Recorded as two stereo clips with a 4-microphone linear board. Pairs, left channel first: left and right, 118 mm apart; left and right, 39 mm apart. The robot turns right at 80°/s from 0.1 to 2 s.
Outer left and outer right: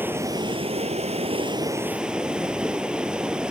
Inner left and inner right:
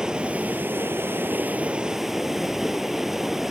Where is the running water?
160° right, 0.9 m; by 3.5 s 10° right, 0.9 m.